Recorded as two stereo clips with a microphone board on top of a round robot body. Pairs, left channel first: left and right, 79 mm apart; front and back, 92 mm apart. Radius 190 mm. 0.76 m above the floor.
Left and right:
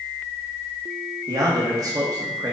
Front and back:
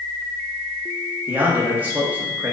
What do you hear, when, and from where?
1.3 s a man speaking: 110° right, 1.3 m